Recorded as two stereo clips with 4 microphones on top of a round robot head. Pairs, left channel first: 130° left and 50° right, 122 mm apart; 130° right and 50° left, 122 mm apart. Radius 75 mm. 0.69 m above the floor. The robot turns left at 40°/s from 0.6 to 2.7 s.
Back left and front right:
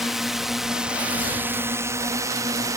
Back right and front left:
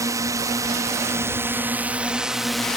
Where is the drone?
35° left; by 2.8 s 50° right.